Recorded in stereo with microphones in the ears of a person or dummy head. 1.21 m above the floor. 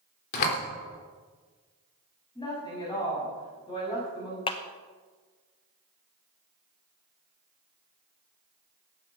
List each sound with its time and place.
0.3 s a door slam: 40° left (ahead or behind), 3 m
2.4 s a woman speaking: 20° left (ahead or behind), 7 m
4.5 s a clap: 20° left (ahead or behind), 1.0 m